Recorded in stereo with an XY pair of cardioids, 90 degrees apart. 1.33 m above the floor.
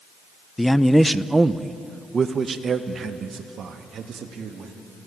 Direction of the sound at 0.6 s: 15° left.